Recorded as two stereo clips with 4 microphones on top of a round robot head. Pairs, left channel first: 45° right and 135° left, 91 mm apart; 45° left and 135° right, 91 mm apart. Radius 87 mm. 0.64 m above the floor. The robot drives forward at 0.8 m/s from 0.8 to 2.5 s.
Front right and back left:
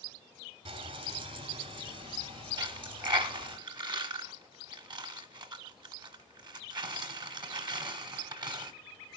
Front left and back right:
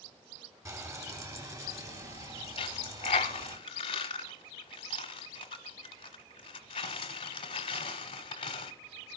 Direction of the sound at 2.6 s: 90° left.